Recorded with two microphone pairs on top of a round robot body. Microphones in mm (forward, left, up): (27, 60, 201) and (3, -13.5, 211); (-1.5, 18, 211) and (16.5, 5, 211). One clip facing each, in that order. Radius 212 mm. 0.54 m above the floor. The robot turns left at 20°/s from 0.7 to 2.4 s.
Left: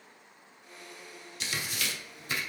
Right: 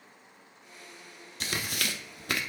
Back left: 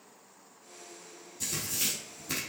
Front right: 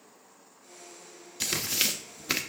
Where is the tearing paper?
60° right, 0.7 m; by 2.4 s 80° right, 0.7 m.